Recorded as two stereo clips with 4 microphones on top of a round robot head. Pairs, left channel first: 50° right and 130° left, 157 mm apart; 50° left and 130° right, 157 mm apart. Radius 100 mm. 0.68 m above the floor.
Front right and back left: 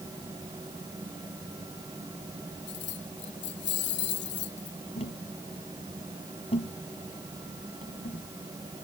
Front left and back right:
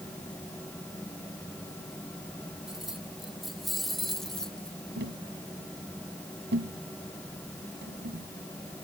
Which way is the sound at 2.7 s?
45° right.